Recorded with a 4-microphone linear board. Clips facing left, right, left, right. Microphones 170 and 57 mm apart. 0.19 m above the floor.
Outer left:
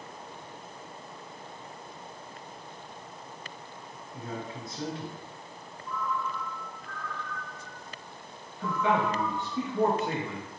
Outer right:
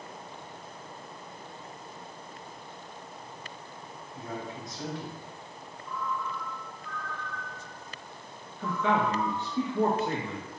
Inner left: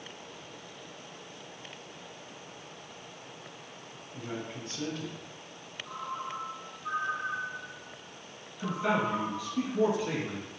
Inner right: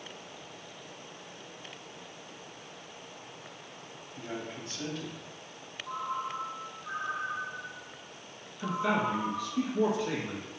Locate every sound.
4.1 s a man speaking: 30° left (ahead or behind), 1.2 m
5.8 s a ringtone: 60° left (ahead or behind), 1.7 m
8.6 s a man speaking: 15° left (ahead or behind), 1.8 m